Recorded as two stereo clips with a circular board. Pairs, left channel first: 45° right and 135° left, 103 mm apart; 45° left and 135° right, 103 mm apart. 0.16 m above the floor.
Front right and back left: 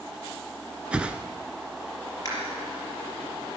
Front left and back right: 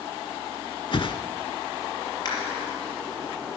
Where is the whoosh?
60° left, 0.8 m.